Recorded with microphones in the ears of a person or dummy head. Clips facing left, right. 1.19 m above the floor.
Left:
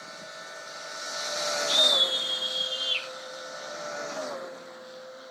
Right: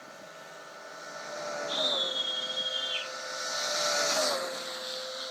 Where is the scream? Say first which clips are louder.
Left 4 dB; 65° left (ahead or behind), 8.5 m.